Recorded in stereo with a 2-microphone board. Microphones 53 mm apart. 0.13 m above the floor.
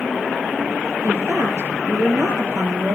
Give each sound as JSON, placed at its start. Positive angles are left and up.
{"t": 1.0, "sound": "a woman speaking", "side_deg": -65, "distance_m": 3.0}